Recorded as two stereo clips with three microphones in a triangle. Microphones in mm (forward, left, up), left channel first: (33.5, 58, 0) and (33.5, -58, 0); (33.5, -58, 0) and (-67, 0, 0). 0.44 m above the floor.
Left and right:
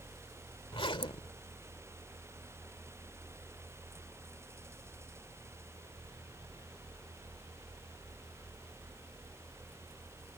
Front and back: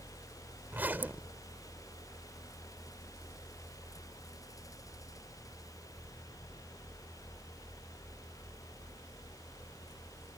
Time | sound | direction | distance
0.7 | a zipper | 80° left | ?